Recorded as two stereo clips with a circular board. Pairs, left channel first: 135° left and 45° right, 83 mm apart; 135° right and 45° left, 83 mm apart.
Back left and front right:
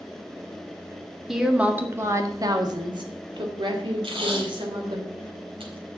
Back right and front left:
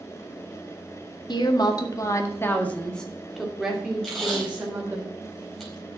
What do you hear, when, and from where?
1.3 s a woman speaking: 130° right, 1.8 m; by 5.0 s 25° right, 3.5 m
4.0 s tape being pulled: 50° right, 4.5 m